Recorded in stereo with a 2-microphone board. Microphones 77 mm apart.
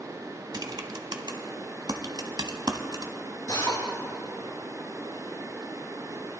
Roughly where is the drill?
Left.